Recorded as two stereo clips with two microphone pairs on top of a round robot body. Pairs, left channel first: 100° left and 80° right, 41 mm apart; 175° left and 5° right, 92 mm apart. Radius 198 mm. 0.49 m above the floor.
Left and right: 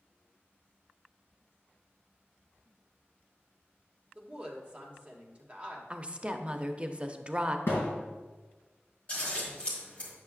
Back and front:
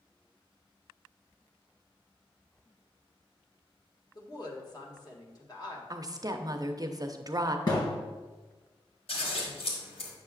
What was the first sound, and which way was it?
A woman speaking, 145° right.